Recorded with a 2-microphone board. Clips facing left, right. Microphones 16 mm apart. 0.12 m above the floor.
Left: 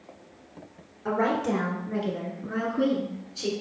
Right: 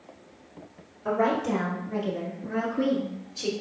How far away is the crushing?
I don't hear crushing.